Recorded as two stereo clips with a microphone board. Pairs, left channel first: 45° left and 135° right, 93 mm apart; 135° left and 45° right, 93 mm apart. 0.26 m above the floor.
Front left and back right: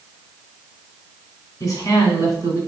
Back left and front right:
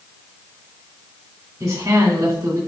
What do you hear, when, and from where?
1.6 s a woman speaking: 5° left, 1.8 m